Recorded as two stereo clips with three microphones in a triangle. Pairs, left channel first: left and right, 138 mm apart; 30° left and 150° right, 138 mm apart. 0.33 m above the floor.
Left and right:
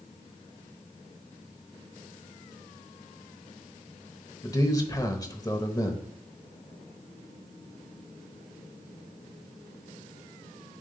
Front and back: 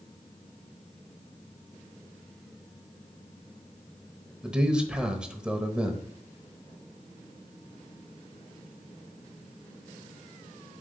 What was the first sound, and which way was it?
A man speaking, 135° left.